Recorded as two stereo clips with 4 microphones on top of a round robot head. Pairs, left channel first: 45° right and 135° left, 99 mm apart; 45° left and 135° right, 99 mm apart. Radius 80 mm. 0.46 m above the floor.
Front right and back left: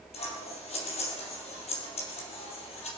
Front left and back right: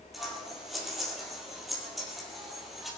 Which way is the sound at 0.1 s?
45° right.